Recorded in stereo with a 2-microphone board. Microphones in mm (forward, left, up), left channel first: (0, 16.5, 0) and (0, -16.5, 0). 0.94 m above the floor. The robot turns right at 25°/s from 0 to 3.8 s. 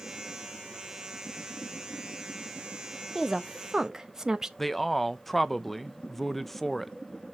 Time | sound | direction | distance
3.1 | a woman speaking | 5° left (ahead or behind) | 0.7 m
4.6 | a man speaking | 5° left (ahead or behind) | 0.5 m